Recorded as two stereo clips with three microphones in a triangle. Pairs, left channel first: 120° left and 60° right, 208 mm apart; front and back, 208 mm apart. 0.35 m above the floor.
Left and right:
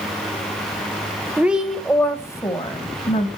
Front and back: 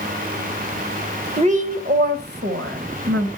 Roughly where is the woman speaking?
Behind right.